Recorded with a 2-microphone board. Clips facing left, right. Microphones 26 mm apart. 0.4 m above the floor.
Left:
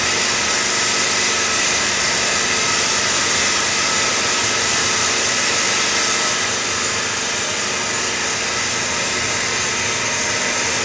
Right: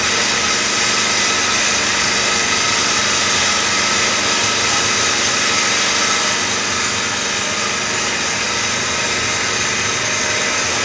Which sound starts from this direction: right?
An engine running, at 0.0 s.